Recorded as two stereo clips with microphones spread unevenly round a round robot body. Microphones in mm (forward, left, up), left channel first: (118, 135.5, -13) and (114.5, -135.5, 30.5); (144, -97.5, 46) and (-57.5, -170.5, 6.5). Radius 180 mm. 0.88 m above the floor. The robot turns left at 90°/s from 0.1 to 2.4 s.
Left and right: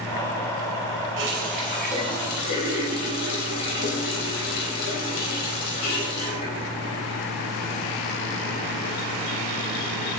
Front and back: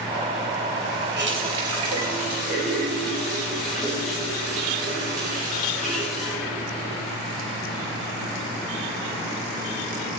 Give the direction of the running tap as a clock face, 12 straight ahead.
4 o'clock.